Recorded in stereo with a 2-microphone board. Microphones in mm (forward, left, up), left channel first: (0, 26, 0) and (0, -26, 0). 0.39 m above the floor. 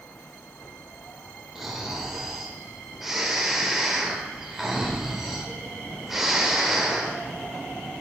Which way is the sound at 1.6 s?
5° right (ahead or behind).